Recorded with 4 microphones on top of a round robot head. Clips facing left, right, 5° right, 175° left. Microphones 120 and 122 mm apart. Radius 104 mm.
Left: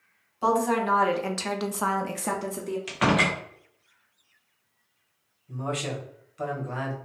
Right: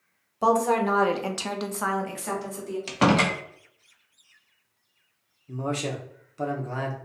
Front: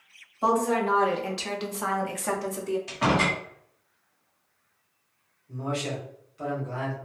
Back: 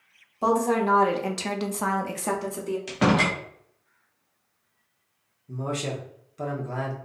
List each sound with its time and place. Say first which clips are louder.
0.4 s a woman speaking: right 2 dB, back 1 dB; 130° right, 1.1 m; by 2.8 s 105° left, 1.0 m
2.9 s a door slam: right 3 dB, back 4 dB; 145° right, 0.5 m
5.5 s a man speaking: right 2 dB, back 1 dB; 145° right, 0.9 m